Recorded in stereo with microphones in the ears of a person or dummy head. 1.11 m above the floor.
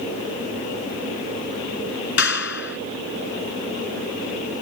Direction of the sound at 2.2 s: 70° left (ahead or behind).